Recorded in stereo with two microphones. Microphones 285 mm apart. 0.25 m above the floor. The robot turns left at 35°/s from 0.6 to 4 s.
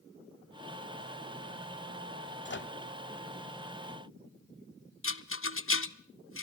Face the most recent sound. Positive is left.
turn(degrees=50)  # may be behind; listen again after turning